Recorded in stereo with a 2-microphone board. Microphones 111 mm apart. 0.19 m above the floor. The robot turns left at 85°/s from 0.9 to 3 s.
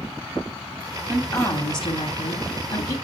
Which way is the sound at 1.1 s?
175° right.